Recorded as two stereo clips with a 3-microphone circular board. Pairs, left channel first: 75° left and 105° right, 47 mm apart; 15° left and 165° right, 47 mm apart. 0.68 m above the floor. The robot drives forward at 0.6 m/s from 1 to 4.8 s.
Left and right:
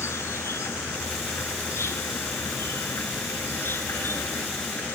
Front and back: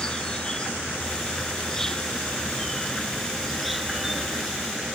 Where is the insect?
90° left; by 5.0 s 110° left.